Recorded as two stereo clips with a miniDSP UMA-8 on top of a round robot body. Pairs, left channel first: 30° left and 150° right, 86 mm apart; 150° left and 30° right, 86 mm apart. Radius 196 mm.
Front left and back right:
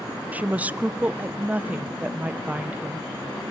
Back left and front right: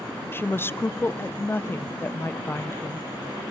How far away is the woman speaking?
About 0.6 m.